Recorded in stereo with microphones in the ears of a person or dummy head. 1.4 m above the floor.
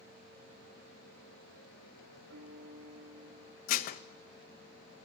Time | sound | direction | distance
2.3 | a piano | 70° right (ahead or behind) | 1.7 m
3.7 | dishes clattering | 45° left (ahead or behind) | 0.8 m